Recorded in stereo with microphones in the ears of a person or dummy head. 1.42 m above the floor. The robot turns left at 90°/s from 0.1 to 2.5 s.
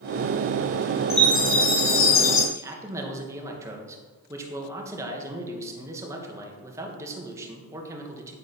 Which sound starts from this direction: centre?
A man speaking, at 2.5 s.